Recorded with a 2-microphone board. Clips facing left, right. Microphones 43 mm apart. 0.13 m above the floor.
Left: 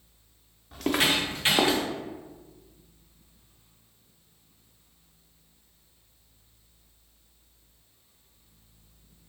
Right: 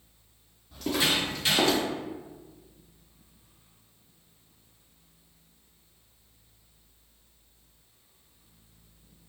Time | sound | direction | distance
0.7 | footsteps | 65° left (ahead or behind) | 1.4 m